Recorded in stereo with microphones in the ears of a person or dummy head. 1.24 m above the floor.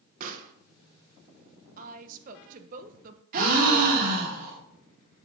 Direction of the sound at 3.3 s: 50° right (ahead or behind).